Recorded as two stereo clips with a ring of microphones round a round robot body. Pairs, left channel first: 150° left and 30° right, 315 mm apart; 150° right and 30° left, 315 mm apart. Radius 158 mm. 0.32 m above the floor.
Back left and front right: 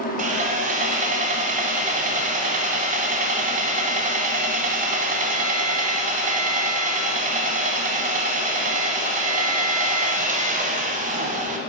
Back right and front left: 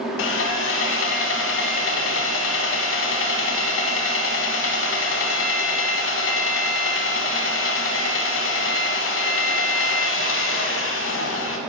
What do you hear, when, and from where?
0.2 s sawing: 100° right, 0.9 m